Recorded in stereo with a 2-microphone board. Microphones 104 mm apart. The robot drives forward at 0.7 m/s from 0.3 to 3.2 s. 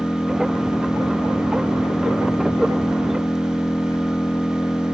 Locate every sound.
0.0 s an engine running: 20° left (ahead or behind); by 5.0 s 25° left (ahead or behind)